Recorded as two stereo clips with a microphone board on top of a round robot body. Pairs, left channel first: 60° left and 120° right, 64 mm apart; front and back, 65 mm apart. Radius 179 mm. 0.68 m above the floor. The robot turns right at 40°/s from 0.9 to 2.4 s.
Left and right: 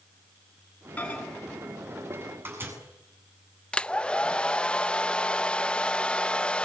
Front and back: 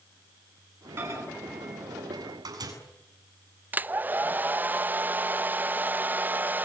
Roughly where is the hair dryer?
Behind left.